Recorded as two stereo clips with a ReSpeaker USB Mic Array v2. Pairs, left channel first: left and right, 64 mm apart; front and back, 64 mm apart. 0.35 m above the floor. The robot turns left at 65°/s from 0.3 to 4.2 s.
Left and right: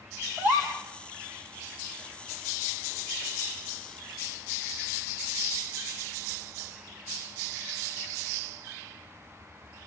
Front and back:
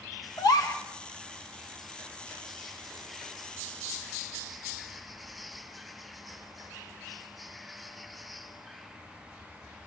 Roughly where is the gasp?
Ahead right.